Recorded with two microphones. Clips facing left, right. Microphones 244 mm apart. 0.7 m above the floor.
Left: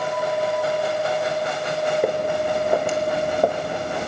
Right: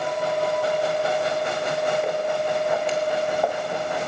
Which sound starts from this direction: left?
Footsteps, at 2.0 s.